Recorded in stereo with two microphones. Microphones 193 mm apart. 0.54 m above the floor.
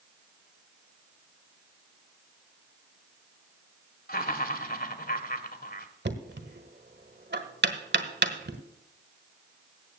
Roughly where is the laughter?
Left.